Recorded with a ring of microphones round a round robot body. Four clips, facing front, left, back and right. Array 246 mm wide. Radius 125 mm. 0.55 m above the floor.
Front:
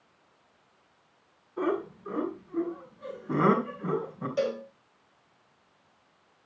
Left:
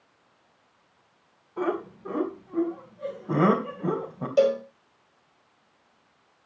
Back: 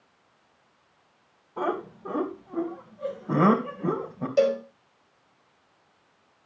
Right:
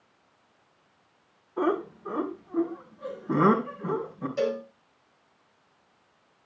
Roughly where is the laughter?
Behind.